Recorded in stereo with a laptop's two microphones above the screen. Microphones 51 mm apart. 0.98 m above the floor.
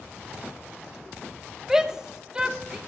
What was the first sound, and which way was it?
A shout, 10° right (ahead or behind).